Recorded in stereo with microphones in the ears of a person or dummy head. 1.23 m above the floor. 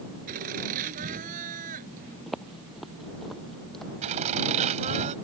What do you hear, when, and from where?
0.3 s laughter: 50° right (ahead or behind); by 2.2 s 45° right (ahead or behind)
2.3 s footsteps: centre (ahead or behind); by 3.9 s 5° left (ahead or behind)
4.0 s laughter: 40° right (ahead or behind)